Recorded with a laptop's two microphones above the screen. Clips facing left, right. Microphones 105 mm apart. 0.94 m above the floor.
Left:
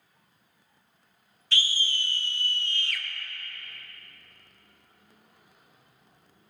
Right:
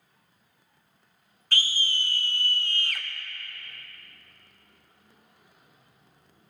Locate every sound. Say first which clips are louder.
1.5 s a scream: right 1 dB; 50° right (ahead or behind), 1.1 m